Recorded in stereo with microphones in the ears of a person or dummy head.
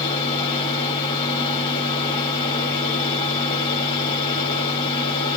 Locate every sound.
0.0 s a fan: 25° left (ahead or behind), 2.5 m